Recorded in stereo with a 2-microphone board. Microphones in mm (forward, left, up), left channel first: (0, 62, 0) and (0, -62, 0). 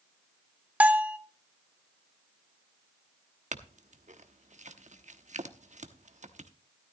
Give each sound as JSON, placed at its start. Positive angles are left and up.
{"t": 0.8, "sound": "a bell", "side_deg": -10, "distance_m": 0.7}
{"t": 3.5, "sound": "a clink", "side_deg": -70, "distance_m": 1.0}